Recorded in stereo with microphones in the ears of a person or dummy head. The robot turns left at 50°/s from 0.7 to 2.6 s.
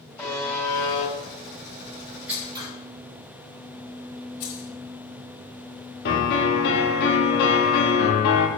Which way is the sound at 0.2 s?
10° left (ahead or behind).